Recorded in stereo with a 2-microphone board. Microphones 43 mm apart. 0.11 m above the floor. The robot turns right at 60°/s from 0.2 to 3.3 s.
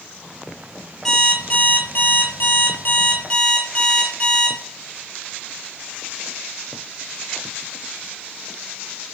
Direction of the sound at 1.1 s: 10° left.